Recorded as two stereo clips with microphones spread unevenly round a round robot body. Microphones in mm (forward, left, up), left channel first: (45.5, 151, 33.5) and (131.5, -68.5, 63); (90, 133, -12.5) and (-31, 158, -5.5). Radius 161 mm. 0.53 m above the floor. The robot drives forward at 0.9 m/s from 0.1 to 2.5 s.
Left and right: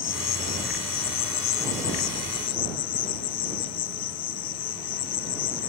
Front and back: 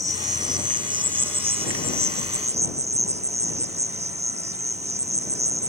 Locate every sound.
0.0 s an insect: 105° left; by 5.7 s 135° left